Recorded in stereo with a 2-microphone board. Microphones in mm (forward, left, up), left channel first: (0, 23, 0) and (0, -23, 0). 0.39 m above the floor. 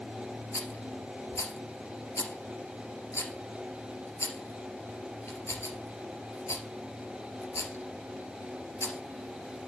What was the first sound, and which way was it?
A rattle, 85° left.